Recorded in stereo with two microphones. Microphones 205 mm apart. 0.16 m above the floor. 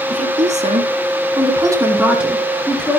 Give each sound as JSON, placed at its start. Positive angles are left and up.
{"t": 0.1, "sound": "a woman speaking", "side_deg": -35, "distance_m": 2.0}